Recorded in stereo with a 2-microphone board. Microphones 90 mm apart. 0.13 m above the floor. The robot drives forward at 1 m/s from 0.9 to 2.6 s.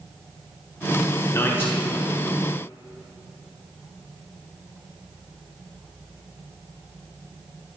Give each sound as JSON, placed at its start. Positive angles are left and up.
{"t": 1.3, "sound": "a man speaking", "side_deg": 30, "distance_m": 1.1}